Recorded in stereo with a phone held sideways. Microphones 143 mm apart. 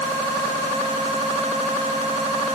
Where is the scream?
I don't hear a scream.